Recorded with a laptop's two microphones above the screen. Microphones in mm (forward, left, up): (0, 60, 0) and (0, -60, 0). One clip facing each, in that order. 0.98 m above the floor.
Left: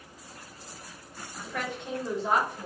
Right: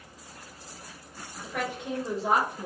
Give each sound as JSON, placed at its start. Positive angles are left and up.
{"t": 1.4, "sound": "a woman speaking", "side_deg": -5, "distance_m": 1.8}